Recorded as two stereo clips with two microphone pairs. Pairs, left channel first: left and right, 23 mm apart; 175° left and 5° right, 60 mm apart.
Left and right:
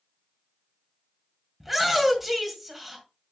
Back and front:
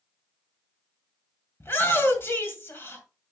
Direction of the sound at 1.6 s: 170° right.